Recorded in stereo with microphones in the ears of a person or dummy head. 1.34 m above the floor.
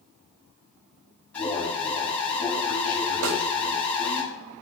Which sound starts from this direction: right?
A snare drum, at 3.2 s.